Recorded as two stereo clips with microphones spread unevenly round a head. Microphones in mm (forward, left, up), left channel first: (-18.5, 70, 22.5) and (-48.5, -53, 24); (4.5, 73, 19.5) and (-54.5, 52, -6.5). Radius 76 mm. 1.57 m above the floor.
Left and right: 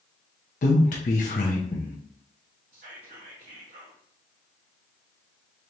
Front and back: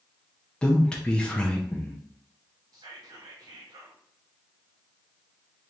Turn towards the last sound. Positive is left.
turn(degrees=-130)